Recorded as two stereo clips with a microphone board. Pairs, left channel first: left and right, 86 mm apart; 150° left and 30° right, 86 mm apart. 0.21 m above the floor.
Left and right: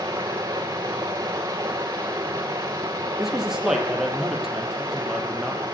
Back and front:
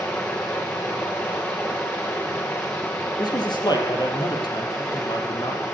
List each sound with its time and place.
0.0 s running water: 140° right, 6 m
3.2 s a man speaking: 175° right, 5.5 m